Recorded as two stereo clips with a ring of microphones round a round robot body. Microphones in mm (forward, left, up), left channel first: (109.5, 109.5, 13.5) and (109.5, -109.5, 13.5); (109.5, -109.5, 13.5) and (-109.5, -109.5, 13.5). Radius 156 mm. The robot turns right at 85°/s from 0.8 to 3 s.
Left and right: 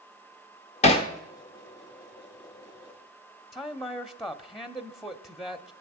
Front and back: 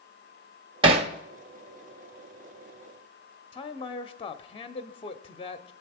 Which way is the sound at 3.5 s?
5° right.